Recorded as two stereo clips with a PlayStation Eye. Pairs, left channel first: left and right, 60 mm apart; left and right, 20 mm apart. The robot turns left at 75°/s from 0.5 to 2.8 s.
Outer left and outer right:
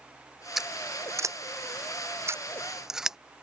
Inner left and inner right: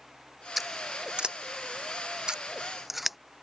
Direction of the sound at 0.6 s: 5° right (ahead or behind).